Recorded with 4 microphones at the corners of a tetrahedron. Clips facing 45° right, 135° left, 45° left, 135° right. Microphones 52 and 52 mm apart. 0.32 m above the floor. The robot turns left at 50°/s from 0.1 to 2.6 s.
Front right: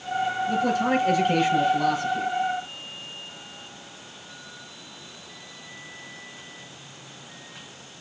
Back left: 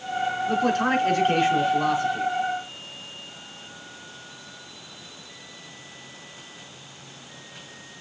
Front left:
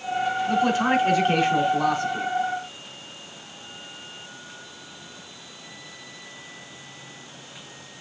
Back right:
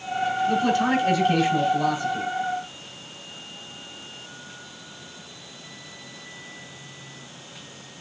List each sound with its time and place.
0.5 s a man speaking: 125° left, 4 m; by 2.3 s 35° left, 4 m